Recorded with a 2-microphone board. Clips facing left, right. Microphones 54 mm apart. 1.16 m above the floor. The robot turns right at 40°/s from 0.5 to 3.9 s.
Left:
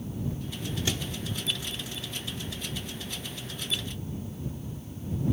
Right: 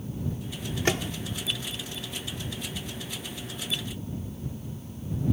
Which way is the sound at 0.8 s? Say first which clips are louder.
Right 8 dB; 50° right (ahead or behind).